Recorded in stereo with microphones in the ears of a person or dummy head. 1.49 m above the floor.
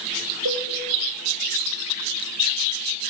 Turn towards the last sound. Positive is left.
turn(degrees=-65)  # may be behind; listen again after turning